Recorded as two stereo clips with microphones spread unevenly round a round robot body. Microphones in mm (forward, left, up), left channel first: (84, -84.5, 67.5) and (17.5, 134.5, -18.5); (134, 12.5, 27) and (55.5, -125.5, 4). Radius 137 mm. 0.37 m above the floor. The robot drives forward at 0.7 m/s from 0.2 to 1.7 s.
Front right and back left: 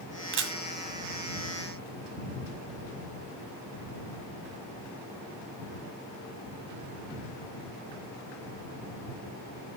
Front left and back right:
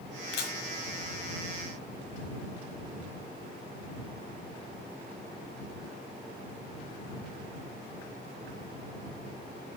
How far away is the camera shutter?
About 1.7 m.